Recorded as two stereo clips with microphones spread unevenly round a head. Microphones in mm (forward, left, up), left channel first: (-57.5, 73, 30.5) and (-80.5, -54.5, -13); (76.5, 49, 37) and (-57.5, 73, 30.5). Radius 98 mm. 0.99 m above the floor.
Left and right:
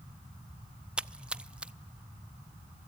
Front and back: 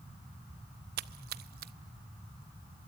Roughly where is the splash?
Behind.